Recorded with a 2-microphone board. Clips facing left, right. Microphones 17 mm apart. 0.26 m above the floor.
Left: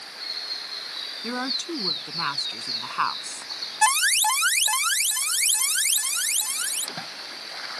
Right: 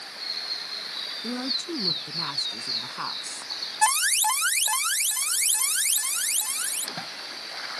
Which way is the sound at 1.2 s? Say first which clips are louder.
Left 2 dB; 65° left (ahead or behind).